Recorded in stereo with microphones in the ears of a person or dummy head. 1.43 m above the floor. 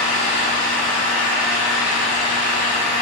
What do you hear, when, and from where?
0.0 s an engine running: 75° right (ahead or behind), 3.5 m